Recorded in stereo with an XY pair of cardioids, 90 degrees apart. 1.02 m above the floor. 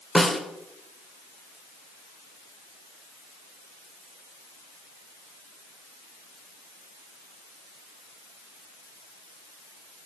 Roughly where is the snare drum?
Ahead.